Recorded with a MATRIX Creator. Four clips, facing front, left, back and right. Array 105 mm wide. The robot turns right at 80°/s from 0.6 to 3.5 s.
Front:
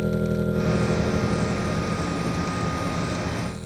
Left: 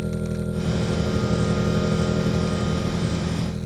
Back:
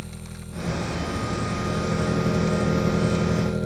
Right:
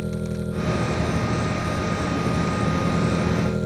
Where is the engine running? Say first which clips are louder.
Left 1 dB, front 16 dB; straight ahead; by 3.7 s 125° right.